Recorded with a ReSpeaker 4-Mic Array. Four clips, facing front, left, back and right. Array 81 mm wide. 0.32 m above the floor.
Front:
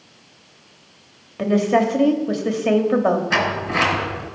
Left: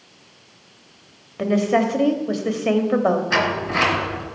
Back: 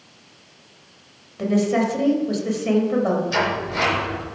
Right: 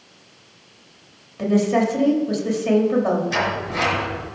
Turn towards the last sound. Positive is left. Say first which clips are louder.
# left 2 dB, front 1 dB
turn(degrees=40)